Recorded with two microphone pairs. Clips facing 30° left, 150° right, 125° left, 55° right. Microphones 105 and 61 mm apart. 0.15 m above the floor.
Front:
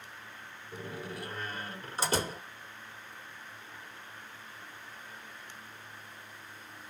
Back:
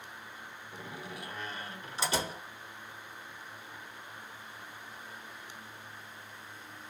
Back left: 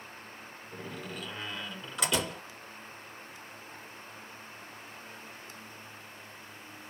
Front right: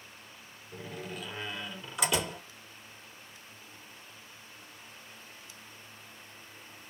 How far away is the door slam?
About 1.1 m.